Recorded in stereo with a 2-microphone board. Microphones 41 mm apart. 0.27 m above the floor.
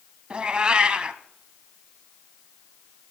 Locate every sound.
0.3 s a cat meowing: 25° right (ahead or behind), 0.6 m